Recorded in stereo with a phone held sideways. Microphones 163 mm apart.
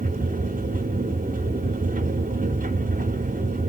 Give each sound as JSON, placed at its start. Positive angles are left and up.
{"t": 0.0, "sound": "a machine running", "side_deg": -50, "distance_m": 0.7}